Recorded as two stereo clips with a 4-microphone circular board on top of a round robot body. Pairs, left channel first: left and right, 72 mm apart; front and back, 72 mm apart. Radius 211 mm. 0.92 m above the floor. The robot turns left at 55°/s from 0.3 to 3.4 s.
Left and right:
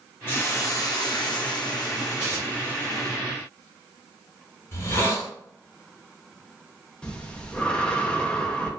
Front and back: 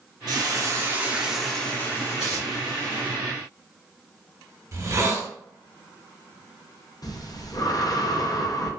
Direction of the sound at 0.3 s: 150° left.